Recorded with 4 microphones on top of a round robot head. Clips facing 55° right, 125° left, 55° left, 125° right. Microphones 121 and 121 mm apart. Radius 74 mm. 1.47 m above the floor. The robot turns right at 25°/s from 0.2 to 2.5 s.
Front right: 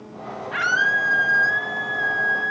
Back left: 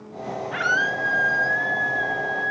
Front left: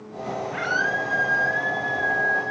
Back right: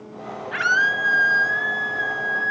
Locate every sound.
0.5 s a scream: 150° right, 8.5 m; by 2.5 s 100° right, 8.5 m